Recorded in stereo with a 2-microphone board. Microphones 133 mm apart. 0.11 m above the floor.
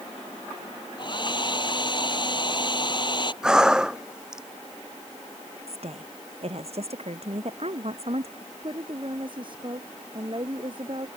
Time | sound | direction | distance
1.0 | a hair dryer | 35° left (ahead or behind) | ?
3.4 | breathing | 5° right (ahead or behind) | ?
5.7 | a woman speaking | 55° right (ahead or behind) | ?
8.4 | a woman speaking | 40° right (ahead or behind) | ?